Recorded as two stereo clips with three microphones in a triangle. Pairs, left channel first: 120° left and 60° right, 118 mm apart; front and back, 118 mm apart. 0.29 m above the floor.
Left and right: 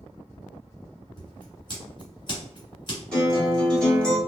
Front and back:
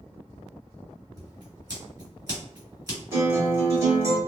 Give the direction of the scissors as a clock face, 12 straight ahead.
7 o'clock.